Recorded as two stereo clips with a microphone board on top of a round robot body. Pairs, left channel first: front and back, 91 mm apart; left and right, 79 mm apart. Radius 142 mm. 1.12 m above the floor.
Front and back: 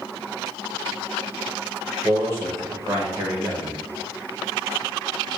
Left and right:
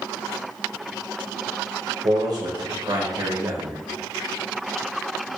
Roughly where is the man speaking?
Behind right.